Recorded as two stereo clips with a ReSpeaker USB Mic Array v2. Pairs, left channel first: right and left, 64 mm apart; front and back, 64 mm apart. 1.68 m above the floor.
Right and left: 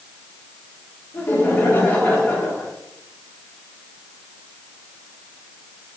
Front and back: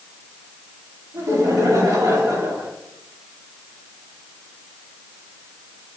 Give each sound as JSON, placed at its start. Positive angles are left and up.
{"t": 1.1, "sound": "laughter", "azimuth_deg": -145, "distance_m": 5.0}